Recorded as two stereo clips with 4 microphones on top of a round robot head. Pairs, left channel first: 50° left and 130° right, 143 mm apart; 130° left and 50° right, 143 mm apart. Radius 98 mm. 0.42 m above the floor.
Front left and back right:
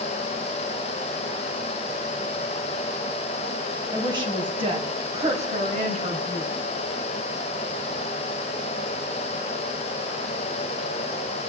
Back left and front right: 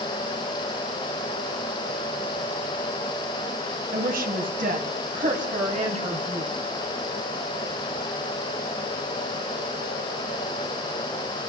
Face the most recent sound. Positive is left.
turn(degrees=-100)